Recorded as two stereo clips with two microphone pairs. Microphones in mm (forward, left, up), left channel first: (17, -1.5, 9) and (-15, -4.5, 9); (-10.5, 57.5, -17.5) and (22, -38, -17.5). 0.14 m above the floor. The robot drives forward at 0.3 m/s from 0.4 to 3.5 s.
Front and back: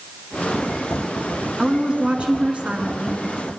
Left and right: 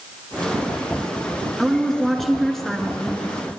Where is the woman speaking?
160° right, 1.4 m; by 3.2 s 170° right, 1.7 m.